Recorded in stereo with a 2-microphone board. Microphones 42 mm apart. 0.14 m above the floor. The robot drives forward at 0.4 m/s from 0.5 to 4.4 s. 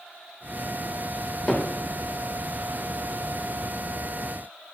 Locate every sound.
1.5 s hammering: 25° left (ahead or behind), 7 m